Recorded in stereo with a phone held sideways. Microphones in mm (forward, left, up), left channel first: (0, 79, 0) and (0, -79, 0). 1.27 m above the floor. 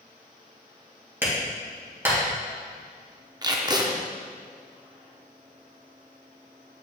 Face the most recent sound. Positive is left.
turn(degrees=-25)  # may be behind; listen again after turning